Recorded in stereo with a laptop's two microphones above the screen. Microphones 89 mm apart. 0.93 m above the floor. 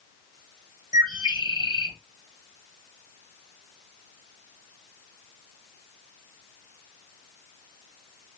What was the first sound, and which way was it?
A bird, 50° right (ahead or behind).